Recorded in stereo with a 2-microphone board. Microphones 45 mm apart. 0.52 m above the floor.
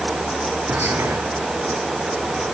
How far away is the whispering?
About 4 m.